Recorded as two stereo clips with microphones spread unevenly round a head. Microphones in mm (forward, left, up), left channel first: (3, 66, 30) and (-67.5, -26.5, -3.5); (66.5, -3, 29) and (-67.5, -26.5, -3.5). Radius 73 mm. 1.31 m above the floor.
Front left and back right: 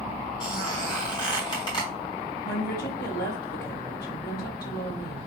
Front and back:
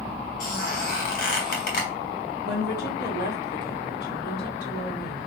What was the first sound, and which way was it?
A squeak, 5° right.